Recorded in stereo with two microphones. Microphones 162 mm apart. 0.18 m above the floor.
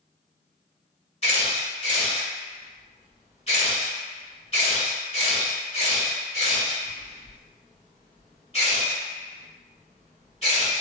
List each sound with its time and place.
1.2 s a camera shutter: 40° left (ahead or behind), 1.6 m